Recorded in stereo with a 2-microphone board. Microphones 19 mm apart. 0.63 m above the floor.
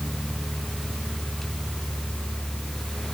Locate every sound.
Only background noise.